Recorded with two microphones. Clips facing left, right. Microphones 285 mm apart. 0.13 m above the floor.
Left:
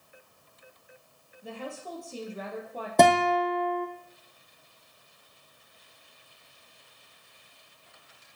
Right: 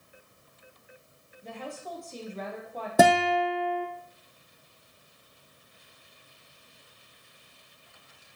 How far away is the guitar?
About 1.0 m.